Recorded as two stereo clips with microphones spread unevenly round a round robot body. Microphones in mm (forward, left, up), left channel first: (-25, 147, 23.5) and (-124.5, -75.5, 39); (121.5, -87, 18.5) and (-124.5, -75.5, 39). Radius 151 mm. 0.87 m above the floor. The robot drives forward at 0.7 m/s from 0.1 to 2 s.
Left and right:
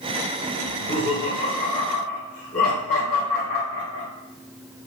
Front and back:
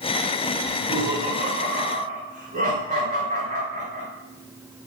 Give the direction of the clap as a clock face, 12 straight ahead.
I don't hear a clap.